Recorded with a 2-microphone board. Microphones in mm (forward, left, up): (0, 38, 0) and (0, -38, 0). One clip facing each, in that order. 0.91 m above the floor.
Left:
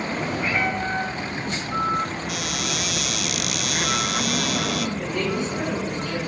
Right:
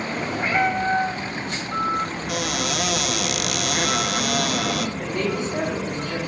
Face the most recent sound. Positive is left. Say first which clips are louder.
# even
turn(degrees=-35)  # may be behind; listen again after turning